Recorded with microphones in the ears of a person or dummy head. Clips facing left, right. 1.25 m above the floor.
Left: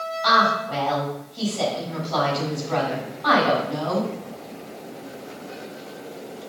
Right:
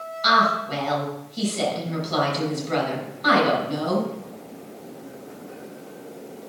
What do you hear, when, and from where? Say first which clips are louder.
0.2 s a woman speaking: even; 40° right (ahead or behind), 5.5 m